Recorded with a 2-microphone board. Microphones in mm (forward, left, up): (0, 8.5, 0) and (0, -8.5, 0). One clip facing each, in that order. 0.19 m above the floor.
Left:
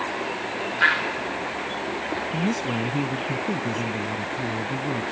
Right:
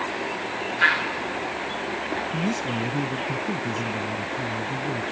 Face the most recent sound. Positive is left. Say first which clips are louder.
# left 3 dB
turn(degrees=20)  # may be behind; listen again after turning